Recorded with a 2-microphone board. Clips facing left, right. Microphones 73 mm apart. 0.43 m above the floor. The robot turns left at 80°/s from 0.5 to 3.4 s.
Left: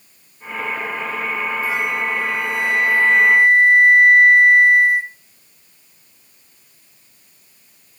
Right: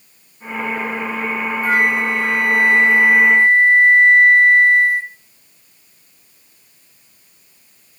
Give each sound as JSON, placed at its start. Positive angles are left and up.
{"t": 1.6, "sound": "a flute", "azimuth_deg": -50, "distance_m": 0.8}